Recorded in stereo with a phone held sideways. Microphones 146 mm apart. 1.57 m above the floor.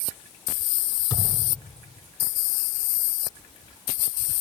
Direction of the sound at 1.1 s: 30° left (ahead or behind).